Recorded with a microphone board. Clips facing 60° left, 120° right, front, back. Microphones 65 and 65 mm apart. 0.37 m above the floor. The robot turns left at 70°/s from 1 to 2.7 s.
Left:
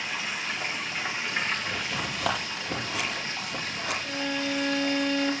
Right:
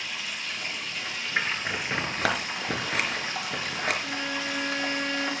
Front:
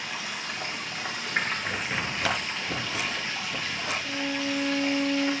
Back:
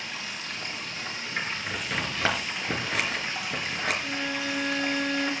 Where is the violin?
170° left, 2.5 m.